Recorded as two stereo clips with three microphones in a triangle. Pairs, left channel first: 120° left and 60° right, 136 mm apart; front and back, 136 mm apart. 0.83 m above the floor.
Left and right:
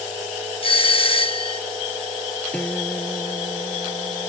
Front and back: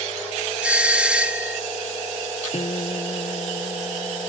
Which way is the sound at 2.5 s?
40° left.